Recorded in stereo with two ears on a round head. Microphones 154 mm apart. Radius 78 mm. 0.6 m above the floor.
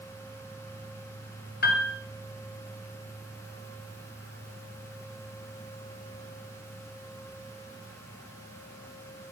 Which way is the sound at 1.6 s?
65° left (ahead or behind).